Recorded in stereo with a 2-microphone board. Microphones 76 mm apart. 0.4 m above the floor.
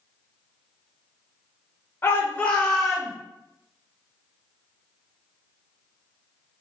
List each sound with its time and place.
2.0 s a shout: 30° left (ahead or behind), 1.6 m; by 3.1 s centre (ahead or behind), 2 m